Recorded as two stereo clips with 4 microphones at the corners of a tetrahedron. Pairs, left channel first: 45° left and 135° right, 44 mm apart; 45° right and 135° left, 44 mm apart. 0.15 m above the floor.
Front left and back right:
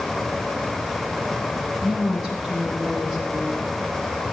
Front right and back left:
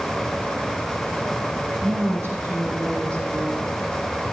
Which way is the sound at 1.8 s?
145° left.